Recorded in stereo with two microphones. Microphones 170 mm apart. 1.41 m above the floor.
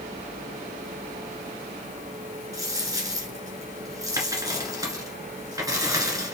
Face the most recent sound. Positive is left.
turn(degrees=-20)  # may be behind; listen again after turning